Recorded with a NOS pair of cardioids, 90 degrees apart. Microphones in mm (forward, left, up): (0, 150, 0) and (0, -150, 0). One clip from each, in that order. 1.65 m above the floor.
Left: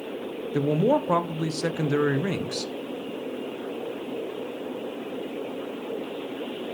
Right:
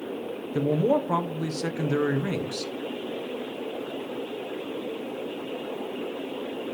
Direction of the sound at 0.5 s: 20° left.